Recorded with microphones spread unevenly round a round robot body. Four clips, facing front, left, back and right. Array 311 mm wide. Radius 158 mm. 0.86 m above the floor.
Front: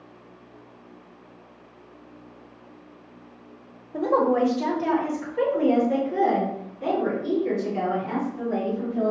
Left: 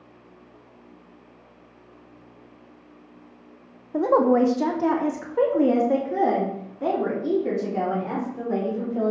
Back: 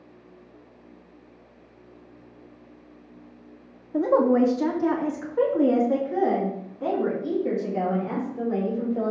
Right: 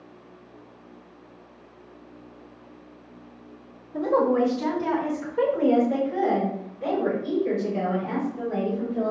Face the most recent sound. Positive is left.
turn(degrees=85)